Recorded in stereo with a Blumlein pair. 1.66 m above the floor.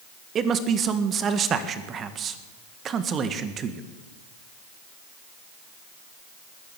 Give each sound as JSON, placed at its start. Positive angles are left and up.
{"t": 0.3, "sound": "a man speaking", "azimuth_deg": -25, "distance_m": 1.6}